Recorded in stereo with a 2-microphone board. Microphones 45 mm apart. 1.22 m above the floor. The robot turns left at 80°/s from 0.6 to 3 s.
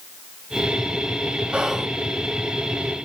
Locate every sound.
1.5 s whispering: 20° right (ahead or behind), 1.2 m; by 1.9 s 5° left (ahead or behind), 1.2 m